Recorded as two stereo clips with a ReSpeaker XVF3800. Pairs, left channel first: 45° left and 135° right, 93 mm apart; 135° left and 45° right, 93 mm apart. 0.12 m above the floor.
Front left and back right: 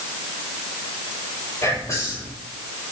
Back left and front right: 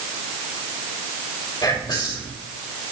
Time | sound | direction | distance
1.6 | whispering | 100° left | 4.5 m